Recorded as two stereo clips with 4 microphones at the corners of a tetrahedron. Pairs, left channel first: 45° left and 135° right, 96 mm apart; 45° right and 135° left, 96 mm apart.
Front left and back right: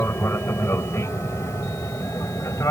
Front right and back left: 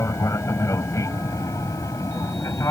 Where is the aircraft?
5° right; by 2.7 s straight ahead.